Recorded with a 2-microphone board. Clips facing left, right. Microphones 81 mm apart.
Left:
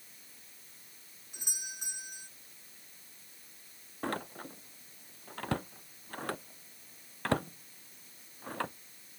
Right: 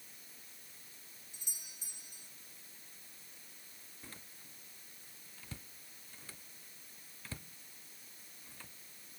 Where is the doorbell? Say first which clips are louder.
Left 14 dB; 70° left (ahead or behind).